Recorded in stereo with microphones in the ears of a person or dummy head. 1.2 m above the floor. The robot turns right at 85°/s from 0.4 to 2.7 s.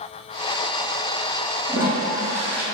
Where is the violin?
No violin in this recording.